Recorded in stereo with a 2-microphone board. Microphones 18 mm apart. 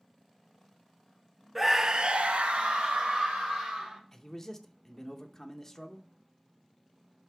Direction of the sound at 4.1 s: 20° left (ahead or behind).